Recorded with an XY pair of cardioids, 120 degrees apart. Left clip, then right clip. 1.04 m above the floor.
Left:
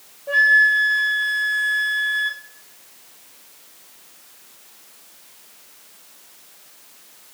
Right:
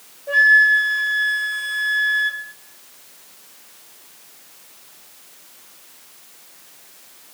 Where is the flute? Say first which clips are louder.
Right 2 dB; 5° left, 1.0 m.